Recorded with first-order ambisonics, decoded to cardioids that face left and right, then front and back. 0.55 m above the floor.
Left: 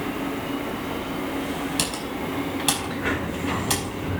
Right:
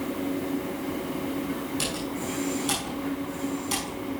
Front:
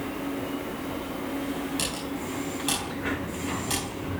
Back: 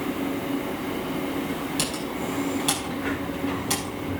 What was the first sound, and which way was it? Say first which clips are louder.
Typing on a keyboard: left 3 dB, back 3 dB; 100° left.